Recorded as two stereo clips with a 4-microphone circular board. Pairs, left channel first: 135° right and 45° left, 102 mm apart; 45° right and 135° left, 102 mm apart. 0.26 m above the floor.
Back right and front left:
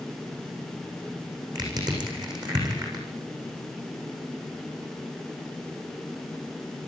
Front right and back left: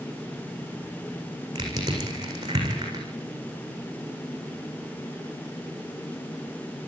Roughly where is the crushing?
Left.